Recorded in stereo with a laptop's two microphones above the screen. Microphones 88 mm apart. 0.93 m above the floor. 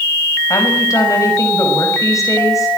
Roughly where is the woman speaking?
Left.